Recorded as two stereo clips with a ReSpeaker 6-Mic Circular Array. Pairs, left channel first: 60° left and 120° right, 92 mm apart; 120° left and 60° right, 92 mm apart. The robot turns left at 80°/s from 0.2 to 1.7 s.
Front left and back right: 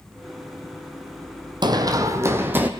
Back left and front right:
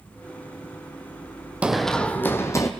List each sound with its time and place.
1.6 s running footsteps: 135° right, 1.1 m; by 2.7 s 170° left, 1.6 m